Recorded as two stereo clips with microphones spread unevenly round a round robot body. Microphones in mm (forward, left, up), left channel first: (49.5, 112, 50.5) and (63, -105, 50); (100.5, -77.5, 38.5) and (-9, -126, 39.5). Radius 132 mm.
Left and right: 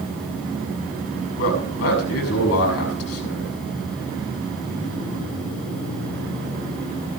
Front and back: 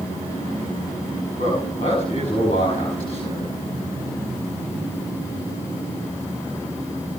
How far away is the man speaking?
About 6.5 m.